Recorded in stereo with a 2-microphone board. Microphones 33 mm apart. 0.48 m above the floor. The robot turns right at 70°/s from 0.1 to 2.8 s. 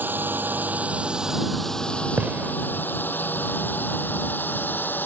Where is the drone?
80° right; by 5.1 s 80° left.